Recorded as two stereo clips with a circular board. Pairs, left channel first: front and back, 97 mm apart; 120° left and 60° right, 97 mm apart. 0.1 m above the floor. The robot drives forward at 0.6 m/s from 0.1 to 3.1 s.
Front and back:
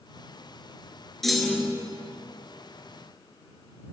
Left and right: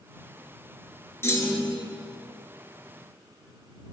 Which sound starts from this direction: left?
A clunk, at 1.2 s.